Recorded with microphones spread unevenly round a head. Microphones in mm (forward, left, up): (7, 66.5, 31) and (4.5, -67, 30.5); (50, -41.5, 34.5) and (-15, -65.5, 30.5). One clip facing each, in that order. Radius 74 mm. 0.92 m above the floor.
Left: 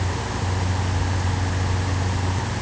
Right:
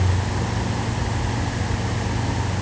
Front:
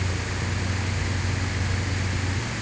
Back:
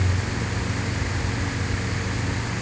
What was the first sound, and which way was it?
Only background noise.